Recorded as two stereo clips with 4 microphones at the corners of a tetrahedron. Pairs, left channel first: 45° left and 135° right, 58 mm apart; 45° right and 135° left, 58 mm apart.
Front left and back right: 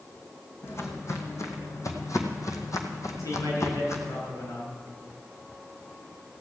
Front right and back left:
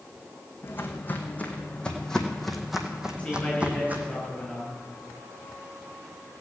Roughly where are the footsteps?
Ahead.